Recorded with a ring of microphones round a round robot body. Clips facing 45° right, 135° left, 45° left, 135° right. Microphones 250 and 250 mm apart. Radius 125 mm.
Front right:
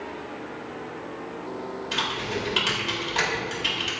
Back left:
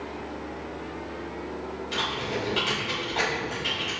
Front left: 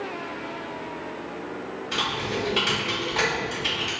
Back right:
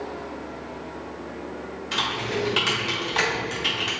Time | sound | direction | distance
1.9 | typing on a keyboard | 90° right | 1.4 m